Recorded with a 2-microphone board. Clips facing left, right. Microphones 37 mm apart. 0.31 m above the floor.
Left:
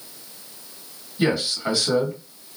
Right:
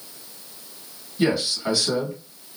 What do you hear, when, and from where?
1.2 s a man speaking: 5° left (ahead or behind), 1.9 m